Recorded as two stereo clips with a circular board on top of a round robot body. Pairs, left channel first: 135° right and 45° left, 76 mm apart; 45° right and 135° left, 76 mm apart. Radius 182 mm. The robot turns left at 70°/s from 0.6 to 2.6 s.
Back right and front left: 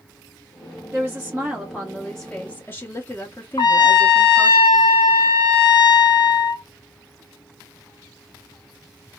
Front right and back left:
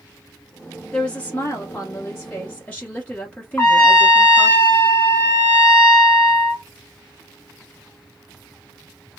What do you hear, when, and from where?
0.9 s a woman speaking: 20° left, 1.2 m; by 4.6 s 100° right, 1.2 m
3.6 s a trumpet: 110° right, 1.4 m